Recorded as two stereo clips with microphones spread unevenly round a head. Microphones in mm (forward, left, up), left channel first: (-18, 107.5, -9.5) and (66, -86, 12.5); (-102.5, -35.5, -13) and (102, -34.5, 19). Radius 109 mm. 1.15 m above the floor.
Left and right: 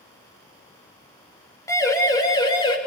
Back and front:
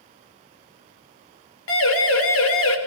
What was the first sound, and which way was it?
A siren, 170° right.